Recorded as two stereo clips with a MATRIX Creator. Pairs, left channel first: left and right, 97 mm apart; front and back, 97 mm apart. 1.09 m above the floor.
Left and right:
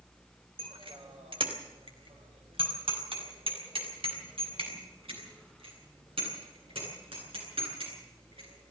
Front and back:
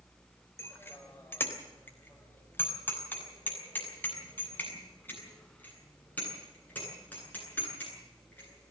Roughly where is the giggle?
No giggle in this recording.